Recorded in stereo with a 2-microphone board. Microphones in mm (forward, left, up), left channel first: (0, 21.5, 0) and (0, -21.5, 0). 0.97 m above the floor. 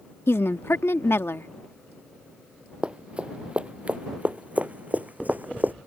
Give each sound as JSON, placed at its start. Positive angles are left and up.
{"t": 0.3, "sound": "a woman speaking", "side_deg": 80}
{"t": 2.8, "sound": "running footsteps", "side_deg": -25}